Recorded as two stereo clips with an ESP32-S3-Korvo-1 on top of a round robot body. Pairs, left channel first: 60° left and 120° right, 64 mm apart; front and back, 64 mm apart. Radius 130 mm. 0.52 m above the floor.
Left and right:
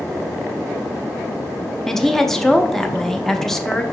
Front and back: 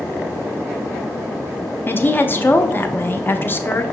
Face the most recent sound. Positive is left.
turn(degrees=-15)